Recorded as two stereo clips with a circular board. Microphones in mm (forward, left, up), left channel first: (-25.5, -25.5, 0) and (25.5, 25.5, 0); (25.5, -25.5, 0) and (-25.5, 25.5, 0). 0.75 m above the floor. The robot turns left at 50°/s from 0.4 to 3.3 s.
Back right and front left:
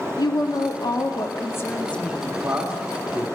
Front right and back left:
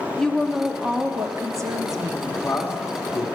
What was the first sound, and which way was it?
A woman speaking, 130° right.